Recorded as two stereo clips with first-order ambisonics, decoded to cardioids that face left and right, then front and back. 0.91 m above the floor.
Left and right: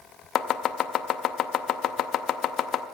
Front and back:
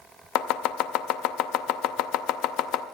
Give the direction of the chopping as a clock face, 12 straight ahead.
11 o'clock.